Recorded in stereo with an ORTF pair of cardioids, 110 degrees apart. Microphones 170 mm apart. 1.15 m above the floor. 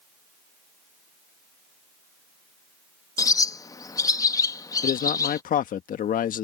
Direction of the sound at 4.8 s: 55° left.